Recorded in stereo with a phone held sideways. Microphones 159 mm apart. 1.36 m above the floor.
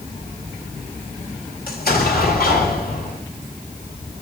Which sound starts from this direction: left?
An explosion, at 1.7 s.